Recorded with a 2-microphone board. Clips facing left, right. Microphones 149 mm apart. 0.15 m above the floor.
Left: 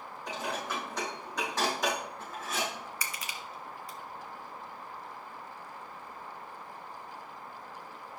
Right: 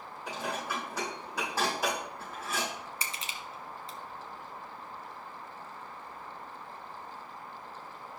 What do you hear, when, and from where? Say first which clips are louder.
0.3 s dishes clattering: even; 10° right (ahead or behind), 5 m
3.0 s crushing: even; 25° right (ahead or behind), 0.9 m